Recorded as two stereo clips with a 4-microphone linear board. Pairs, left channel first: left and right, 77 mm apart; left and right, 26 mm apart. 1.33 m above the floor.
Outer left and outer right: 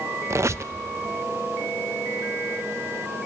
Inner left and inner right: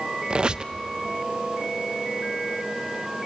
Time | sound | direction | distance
0.3 | a squeak | 40° right (ahead or behind) | 0.6 m